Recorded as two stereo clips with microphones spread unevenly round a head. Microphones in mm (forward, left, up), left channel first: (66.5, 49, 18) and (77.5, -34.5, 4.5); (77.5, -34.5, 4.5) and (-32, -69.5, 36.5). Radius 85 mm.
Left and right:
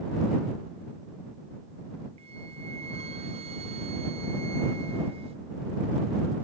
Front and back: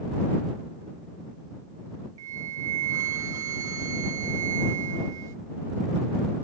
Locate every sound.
2.2 s a flute: 100° right